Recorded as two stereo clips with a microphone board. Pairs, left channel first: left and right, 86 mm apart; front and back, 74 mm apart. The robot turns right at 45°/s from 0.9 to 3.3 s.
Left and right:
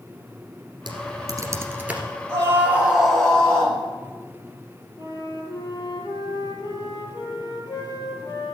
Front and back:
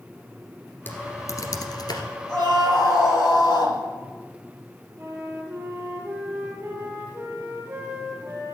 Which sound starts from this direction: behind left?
A flute, at 5.0 s.